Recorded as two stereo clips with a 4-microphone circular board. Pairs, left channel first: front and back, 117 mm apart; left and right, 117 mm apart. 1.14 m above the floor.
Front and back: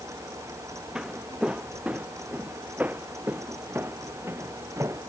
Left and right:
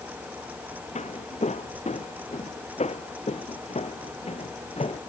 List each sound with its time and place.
0.9 s footsteps: 95° left; by 5.0 s 115° left